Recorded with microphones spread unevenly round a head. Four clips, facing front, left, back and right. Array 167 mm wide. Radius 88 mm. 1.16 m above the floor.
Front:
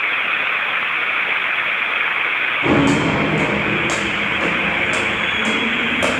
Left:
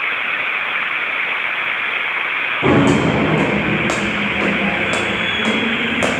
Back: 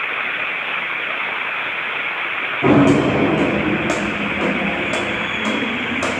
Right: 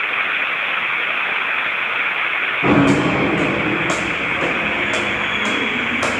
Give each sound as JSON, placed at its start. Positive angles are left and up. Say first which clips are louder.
{"t": 2.6, "sound": "footsteps", "louder": "left 1 dB, back 3 dB", "azimuth_deg": 135, "distance_m": 3.5}